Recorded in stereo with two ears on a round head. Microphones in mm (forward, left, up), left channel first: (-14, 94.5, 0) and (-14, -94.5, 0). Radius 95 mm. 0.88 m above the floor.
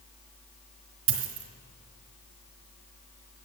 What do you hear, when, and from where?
1.1 s a dropped coin: 60° right (ahead or behind), 2 m